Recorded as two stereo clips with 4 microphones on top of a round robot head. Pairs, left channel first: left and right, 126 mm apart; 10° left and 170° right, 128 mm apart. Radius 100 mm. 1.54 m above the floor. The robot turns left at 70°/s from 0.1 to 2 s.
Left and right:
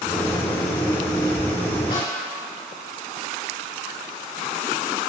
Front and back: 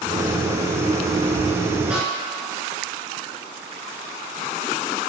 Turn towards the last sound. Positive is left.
turn(degrees=100)